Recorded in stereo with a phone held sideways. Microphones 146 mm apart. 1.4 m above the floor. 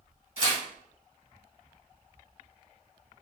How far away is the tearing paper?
About 1.4 m.